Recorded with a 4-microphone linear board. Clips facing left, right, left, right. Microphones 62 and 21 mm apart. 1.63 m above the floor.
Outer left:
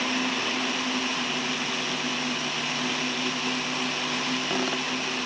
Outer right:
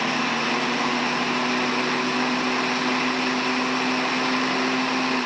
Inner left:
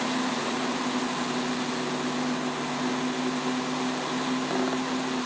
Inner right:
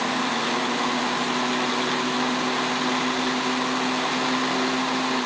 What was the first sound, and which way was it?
Only background noise.